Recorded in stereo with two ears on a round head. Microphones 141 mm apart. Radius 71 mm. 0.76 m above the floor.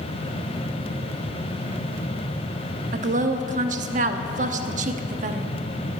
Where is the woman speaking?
50° right (ahead or behind), 1.0 m.